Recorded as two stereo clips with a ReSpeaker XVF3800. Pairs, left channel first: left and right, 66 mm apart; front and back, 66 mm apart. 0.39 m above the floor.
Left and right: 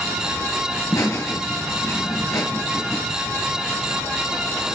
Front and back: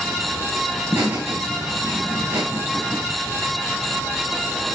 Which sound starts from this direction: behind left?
Laughter, at 0.9 s.